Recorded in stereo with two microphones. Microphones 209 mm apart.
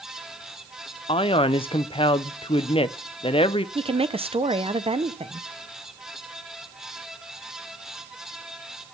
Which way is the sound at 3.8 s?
30° right (ahead or behind).